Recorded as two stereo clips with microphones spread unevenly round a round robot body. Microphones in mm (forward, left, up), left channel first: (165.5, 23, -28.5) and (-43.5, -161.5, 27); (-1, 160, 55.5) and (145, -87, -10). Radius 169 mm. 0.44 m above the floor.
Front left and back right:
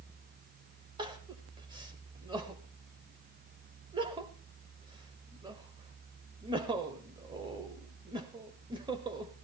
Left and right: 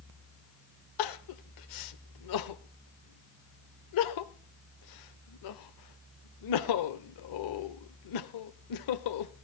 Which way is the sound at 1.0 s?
140° left.